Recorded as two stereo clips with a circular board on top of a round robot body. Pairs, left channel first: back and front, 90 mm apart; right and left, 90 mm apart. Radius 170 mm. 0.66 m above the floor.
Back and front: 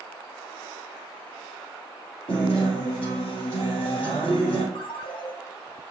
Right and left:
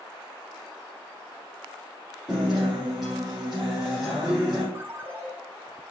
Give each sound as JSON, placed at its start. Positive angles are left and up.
{"t": 2.3, "sound": "a guitar", "azimuth_deg": 175, "distance_m": 0.6}
{"t": 4.8, "sound": "a ringtone", "azimuth_deg": 155, "distance_m": 1.1}